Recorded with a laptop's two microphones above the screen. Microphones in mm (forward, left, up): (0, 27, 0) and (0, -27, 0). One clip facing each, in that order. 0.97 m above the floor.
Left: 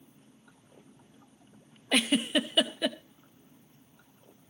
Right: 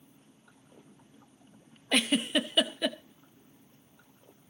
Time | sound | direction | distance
1.9 | a giggle | centre (ahead or behind) | 0.6 m